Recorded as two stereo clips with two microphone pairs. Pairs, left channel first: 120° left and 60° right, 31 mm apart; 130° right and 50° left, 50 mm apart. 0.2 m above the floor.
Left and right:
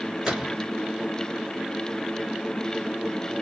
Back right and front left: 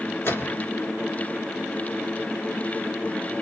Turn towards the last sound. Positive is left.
turn(degrees=-145)